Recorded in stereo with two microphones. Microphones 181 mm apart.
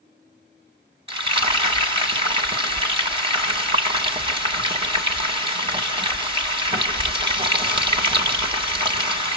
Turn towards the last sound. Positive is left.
turn(degrees=-30)  # may be behind; listen again after turning